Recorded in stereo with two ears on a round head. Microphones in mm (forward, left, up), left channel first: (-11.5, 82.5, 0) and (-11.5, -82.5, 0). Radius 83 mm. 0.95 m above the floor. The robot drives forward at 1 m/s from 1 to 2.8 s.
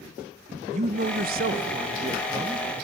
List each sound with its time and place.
0.7 s a man speaking: 40° right (ahead or behind), 0.6 m; by 2.7 s 15° right (ahead or behind), 1.4 m